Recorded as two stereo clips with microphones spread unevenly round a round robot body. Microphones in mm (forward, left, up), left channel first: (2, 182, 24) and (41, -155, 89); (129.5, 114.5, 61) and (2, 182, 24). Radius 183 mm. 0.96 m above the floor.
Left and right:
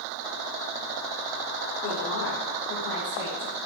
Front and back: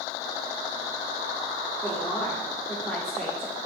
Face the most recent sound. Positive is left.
turn(degrees=60)